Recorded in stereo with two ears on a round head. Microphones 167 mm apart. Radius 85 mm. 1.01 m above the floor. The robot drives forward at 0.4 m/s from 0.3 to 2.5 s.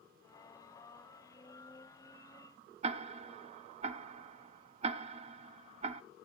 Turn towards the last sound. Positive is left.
turn(degrees=-35)  # may be behind; listen again after turning